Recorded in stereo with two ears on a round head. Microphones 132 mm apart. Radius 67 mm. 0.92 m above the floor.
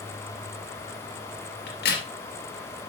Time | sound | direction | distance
1.7 | a crack | 80° left | 3.5 m